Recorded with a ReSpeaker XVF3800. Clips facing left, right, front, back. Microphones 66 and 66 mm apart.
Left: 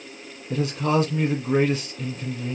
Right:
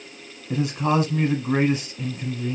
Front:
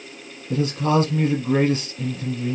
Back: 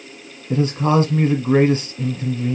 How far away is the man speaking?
About 1.3 m.